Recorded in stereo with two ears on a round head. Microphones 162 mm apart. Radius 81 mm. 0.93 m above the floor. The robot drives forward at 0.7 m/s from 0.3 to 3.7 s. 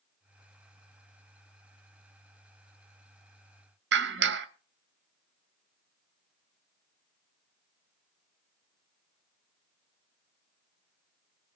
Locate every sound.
3.9 s a clap: 70° right (ahead or behind), 1.7 m